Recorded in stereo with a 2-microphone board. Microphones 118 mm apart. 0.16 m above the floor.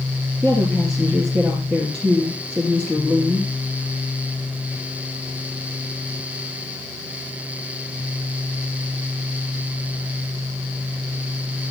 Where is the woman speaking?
10° left (ahead or behind), 3 m.